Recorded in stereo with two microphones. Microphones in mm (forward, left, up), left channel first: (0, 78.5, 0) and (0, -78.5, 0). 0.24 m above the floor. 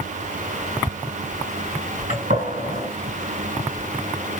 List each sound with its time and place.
2.1 s a gunshot: 55° right (ahead or behind), 3 m